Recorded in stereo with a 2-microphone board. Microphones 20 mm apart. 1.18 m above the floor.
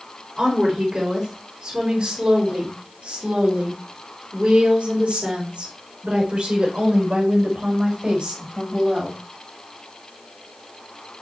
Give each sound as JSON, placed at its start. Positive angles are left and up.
{"t": 0.4, "sound": "a woman speaking", "side_deg": -50, "distance_m": 3.5}